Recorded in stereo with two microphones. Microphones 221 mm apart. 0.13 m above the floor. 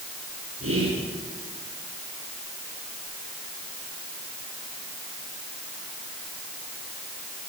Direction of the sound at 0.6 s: 75° right (ahead or behind).